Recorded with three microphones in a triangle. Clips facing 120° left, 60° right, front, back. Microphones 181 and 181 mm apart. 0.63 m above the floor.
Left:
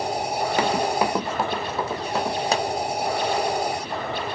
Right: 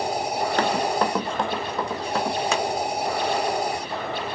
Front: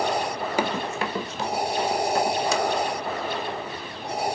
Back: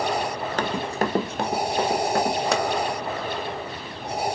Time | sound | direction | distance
0.6 | running footsteps | 55° left | 0.6 m
2.5 | a pop | 170° left | 1.3 m